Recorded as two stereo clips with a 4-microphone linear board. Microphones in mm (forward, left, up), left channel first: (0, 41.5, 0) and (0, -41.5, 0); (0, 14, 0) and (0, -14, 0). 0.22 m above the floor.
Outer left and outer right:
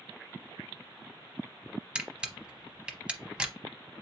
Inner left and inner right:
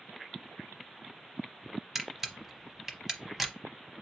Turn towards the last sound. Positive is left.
turn(degrees=-10)  # may be behind; listen again after turning